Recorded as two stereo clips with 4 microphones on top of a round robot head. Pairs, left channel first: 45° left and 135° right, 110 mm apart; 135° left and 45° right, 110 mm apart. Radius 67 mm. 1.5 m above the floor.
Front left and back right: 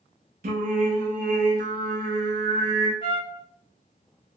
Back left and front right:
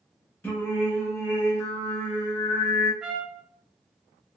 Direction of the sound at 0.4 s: 150° right.